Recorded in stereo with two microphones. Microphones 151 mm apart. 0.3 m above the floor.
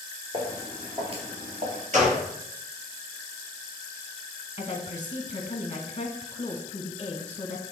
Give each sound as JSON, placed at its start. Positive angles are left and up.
{"t": 0.3, "sound": "footsteps", "side_deg": -30, "distance_m": 3.0}
{"t": 1.9, "sound": "a gunshot", "side_deg": -50, "distance_m": 4.0}
{"t": 4.6, "sound": "a woman speaking", "side_deg": 35, "distance_m": 1.1}